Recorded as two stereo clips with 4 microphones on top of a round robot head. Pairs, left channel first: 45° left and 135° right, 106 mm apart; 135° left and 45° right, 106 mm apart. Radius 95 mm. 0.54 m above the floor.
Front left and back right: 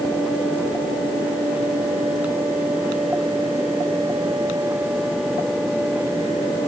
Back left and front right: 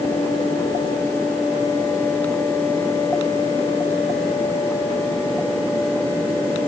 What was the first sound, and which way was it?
Only background noise.